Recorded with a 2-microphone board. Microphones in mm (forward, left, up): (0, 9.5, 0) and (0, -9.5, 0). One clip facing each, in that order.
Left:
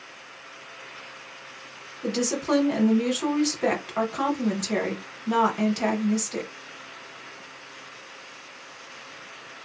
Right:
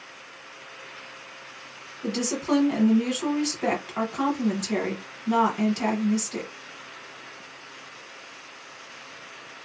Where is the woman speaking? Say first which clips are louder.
Left 1 dB; 5° left (ahead or behind), 1.3 m.